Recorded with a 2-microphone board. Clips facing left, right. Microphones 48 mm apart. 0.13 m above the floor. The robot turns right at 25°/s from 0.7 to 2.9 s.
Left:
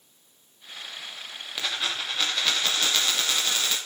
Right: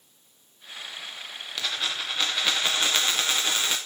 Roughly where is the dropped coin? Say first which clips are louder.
Left 1 dB; behind.